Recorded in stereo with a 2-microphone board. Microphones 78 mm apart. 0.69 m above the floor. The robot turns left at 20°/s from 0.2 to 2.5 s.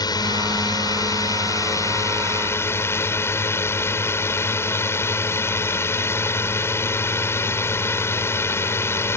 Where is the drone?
85° left; by 9.2 s 35° left.